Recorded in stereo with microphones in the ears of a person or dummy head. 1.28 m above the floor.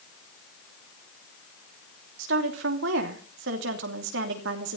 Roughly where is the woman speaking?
Right.